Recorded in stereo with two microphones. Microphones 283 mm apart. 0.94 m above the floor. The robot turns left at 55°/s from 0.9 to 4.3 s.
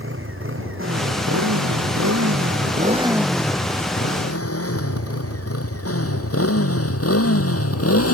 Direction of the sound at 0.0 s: 45° right (ahead or behind).